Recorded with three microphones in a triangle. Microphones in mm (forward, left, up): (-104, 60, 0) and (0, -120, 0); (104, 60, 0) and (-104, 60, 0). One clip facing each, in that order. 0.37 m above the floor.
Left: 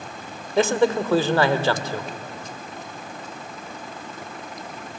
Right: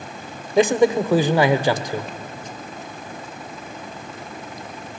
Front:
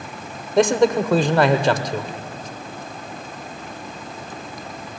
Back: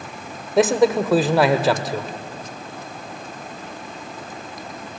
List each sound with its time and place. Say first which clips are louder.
0.6 s a man speaking: right 3 dB, even; 100° right, 0.9 m